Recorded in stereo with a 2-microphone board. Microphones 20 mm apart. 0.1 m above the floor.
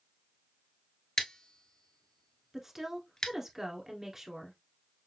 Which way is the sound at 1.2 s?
45° left (ahead or behind).